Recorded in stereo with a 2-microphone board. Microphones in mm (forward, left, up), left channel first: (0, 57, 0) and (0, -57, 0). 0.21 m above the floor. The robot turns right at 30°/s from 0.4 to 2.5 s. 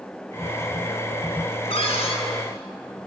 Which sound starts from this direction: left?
A cupboard door, at 1.7 s.